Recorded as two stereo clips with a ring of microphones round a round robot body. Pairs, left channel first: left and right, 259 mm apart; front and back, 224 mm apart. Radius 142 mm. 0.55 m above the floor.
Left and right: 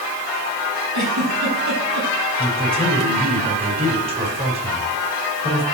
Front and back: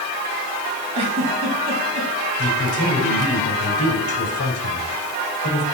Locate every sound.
0.9 s a giggle: 110° right, 4.5 m
2.4 s a man speaking: 20° right, 4.5 m